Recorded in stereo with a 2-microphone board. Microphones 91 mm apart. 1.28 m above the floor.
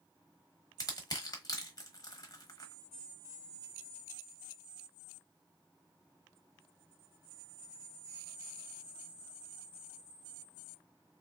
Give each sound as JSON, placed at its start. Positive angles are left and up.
{"t": 0.8, "sound": "crushing", "side_deg": 40, "distance_m": 1.0}